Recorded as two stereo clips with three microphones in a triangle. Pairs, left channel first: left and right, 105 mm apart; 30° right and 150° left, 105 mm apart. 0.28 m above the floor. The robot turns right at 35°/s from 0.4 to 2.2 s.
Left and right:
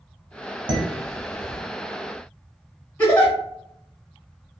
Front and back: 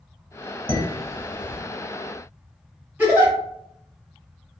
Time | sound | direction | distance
0.7 | dishes clattering | 60° right | 1.2 m
3.0 | a giggle | 115° left | 1.3 m